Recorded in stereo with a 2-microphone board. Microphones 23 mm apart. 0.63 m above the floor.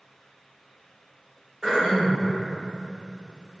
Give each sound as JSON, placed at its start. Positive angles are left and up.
{"t": 1.6, "sound": "throat clearing", "side_deg": -25, "distance_m": 1.1}